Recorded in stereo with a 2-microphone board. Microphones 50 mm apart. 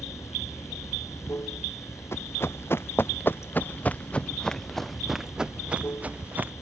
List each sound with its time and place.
0.0 s running water: 80° left
2.1 s running footsteps: 60° left (ahead or behind); by 6.5 s 40° right (ahead or behind)